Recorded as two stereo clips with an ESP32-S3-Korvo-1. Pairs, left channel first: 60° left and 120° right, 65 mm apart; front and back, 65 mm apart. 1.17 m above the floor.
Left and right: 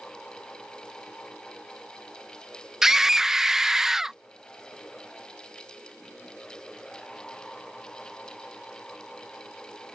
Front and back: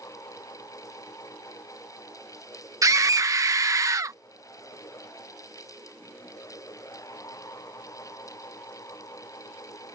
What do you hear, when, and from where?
2.8 s a scream: 160° left